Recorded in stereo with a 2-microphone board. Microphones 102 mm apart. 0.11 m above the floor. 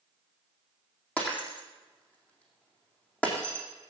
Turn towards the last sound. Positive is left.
turn(degrees=15)  # may be behind; listen again after turning